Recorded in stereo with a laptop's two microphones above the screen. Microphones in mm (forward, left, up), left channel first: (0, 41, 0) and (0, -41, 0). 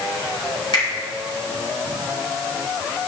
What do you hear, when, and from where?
0.7 s a finger snap: 60° left (ahead or behind), 3 m